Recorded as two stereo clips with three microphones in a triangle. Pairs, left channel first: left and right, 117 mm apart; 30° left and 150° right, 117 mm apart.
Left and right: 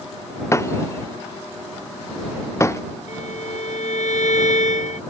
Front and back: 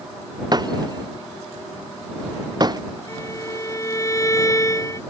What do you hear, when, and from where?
0.5 s breaking glass: 155° left
3.1 s a violin: 95° left